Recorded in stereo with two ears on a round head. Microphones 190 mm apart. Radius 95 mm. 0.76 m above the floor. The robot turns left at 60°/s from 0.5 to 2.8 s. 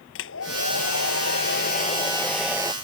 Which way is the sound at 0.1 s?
115° left.